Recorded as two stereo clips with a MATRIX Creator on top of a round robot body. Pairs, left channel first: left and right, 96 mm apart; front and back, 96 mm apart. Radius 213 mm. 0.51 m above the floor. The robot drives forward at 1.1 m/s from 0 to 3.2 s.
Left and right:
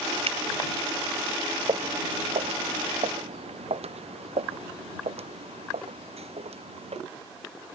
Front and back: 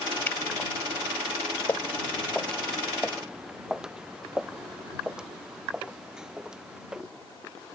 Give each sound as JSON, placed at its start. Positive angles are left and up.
{"t": 0.3, "sound": "a finger snap", "azimuth_deg": -70}
{"t": 1.7, "sound": "footsteps", "azimuth_deg": -65}